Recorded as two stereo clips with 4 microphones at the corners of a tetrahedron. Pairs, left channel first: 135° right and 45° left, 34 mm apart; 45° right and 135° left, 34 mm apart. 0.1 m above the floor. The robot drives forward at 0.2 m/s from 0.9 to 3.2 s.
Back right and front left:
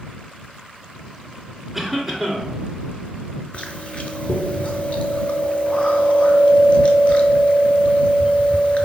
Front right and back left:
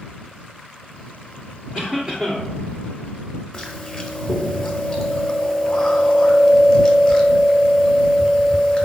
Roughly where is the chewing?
Behind right.